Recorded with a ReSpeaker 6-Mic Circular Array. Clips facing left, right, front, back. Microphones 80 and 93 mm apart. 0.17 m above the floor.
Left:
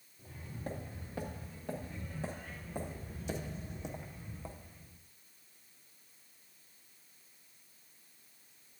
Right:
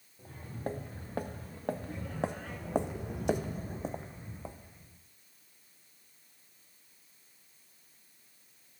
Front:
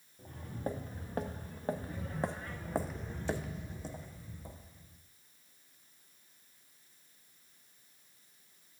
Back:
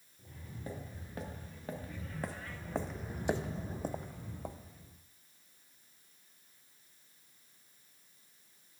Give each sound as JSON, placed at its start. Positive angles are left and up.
{"t": 0.2, "sound": "footsteps", "azimuth_deg": -40, "distance_m": 1.7}